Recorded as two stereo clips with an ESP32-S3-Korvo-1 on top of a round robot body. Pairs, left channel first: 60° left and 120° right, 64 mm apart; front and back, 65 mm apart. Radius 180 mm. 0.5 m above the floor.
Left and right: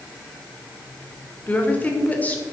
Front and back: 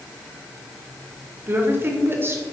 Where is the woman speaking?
125° left, 2.5 m.